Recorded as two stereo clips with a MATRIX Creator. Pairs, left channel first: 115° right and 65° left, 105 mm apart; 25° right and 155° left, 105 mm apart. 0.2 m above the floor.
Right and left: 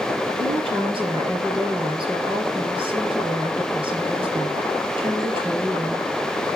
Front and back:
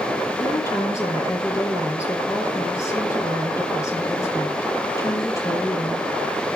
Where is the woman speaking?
35° left, 4 m.